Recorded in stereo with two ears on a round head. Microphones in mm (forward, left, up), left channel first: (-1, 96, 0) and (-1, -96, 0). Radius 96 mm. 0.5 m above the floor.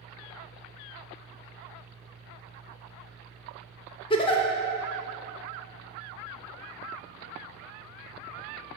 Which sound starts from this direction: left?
A giggle, at 4.1 s.